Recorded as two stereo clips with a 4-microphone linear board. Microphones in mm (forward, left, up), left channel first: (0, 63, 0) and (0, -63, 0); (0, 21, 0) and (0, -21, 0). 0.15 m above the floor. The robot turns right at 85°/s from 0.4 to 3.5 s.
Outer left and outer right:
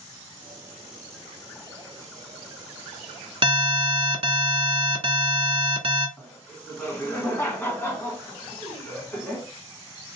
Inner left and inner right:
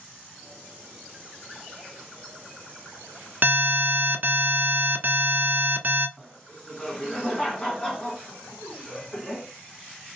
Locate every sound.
3.4 s an alarm: 40° right (ahead or behind), 0.9 m
6.2 s laughter: 20° left (ahead or behind), 1.0 m